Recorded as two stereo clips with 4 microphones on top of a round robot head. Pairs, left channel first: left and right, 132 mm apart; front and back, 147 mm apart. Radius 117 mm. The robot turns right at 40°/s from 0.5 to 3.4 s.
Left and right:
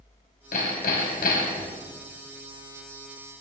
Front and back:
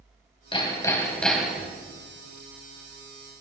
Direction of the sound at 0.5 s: 55° left.